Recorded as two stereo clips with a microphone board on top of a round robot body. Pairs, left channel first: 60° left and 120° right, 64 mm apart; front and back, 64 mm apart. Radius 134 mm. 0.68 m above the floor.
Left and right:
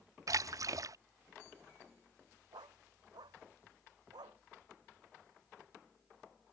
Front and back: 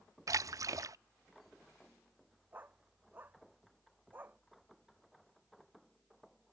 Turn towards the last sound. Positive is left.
turn(degrees=-120)